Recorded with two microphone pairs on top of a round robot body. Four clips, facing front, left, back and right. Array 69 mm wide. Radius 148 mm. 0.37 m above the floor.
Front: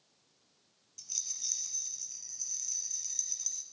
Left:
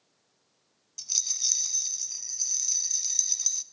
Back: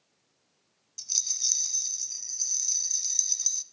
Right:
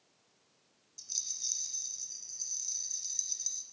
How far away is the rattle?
About 1.0 m.